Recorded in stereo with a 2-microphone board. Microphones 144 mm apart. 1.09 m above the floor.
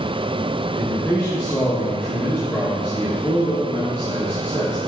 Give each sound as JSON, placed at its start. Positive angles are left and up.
{"t": 0.8, "sound": "a man speaking", "side_deg": 20, "distance_m": 2.0}